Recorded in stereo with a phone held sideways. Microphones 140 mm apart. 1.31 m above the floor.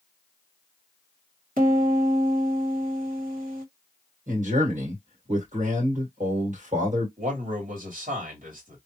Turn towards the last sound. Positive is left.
turn(degrees=-75)  # may be behind; listen again after turning